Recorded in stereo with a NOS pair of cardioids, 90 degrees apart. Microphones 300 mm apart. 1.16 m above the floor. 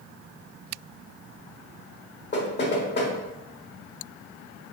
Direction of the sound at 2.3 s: 40° left.